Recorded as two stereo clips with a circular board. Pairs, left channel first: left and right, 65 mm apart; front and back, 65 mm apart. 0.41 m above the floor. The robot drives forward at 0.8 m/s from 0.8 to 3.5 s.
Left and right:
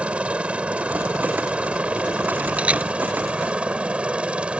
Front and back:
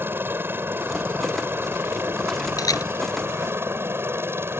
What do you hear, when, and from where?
0.0 s a helicopter: 150° right; by 4.6 s 155° right
2.6 s a camera shutter: 20° right